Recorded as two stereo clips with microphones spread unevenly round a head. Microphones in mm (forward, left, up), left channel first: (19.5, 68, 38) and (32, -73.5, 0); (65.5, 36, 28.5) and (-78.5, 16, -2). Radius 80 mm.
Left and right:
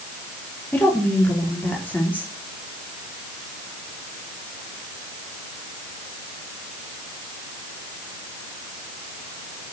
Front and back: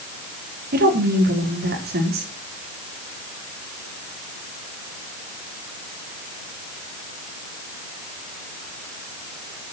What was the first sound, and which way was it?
A woman speaking, 175° left.